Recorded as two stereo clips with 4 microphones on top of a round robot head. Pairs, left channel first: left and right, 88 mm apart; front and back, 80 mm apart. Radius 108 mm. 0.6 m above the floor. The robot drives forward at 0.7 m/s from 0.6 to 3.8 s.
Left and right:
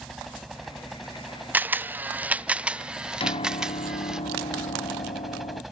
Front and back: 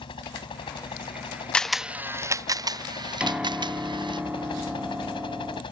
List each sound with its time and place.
0.0 s a helicopter: straight ahead
1.5 s a camera shutter: 60° right; by 4.2 s 175° right
3.2 s a piano: 100° left; by 5.6 s 105° left